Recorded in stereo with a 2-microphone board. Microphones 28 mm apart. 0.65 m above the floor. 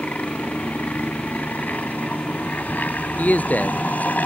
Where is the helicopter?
70° left (ahead or behind); by 4.3 s 75° left (ahead or behind).